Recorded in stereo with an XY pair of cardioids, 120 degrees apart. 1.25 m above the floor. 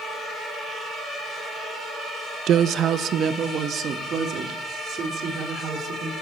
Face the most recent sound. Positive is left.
turn(degrees=-50)